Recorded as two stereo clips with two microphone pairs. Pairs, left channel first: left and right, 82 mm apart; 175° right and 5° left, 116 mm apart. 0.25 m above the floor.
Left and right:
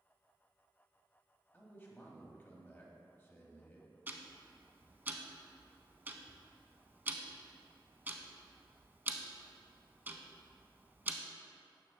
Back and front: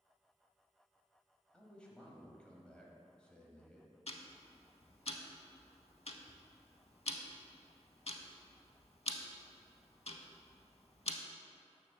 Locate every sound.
1.5 s a man speaking: 115° left, 1.0 m
4.1 s ticking: 150° right, 0.5 m